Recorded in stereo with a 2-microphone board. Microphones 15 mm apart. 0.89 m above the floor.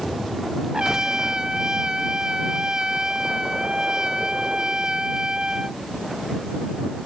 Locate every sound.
0.7 s a trumpet: 75° right (ahead or behind)